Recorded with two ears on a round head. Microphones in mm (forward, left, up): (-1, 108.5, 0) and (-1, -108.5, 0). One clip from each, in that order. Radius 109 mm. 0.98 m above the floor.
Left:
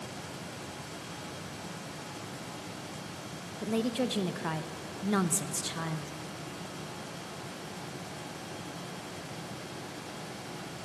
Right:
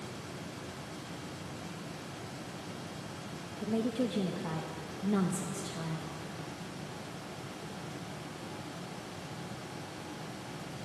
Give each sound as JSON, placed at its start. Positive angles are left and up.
{"t": 3.6, "sound": "a woman speaking", "side_deg": 55, "distance_m": 0.6}